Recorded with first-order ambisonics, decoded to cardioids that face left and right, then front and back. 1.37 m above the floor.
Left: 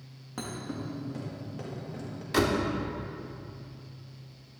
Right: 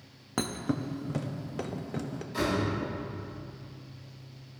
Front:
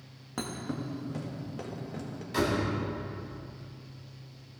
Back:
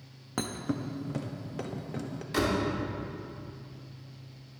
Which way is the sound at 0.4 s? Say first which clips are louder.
Right 5 dB, back 2 dB; 115° right.